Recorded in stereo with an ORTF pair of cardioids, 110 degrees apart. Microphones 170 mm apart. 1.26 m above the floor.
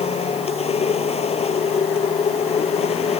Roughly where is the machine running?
Ahead left.